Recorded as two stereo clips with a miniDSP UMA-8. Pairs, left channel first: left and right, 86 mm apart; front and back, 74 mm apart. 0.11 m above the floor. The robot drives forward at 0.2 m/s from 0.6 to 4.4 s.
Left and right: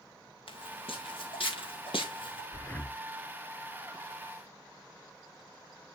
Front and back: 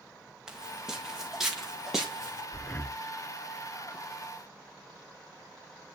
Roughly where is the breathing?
Ahead left.